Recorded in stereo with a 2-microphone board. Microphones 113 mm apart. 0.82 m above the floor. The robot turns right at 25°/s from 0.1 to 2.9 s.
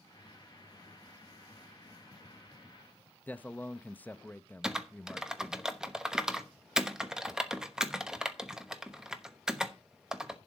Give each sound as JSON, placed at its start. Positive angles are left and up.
{"t": 3.3, "sound": "a man speaking", "side_deg": 15, "distance_m": 0.6}
{"t": 4.6, "sound": "typing on a keyboard", "side_deg": -5, "distance_m": 1.0}